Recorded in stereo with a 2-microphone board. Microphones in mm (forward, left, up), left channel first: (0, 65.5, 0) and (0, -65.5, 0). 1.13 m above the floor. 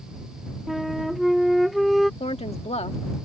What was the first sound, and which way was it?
A flute, centre (ahead or behind).